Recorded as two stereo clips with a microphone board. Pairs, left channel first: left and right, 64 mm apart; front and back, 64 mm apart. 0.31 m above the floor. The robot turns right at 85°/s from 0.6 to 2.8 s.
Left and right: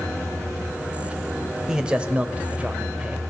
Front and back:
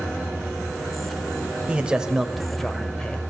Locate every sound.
1.7 s a man speaking: 150° right, 1.0 m; by 3.2 s 55° right, 1.0 m